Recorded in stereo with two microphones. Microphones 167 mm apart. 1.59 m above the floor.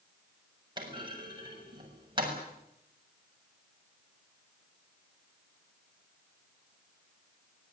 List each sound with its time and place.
0.8 s a clunk: 30° right (ahead or behind), 7 m